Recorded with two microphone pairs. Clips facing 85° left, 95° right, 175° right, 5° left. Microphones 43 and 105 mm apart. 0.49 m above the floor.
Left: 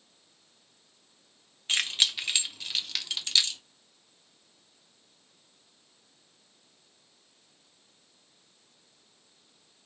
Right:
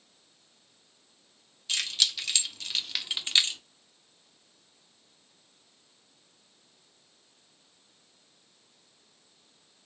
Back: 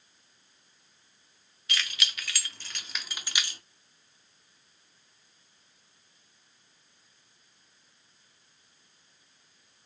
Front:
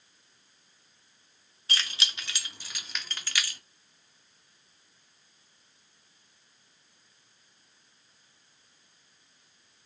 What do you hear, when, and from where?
1.7 s keys jangling: 50° left, 0.9 m; by 3.6 s 130° right, 0.8 m